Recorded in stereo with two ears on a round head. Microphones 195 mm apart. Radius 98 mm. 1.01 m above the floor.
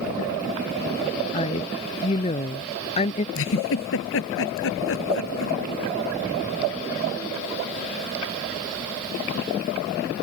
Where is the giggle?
65° left (ahead or behind).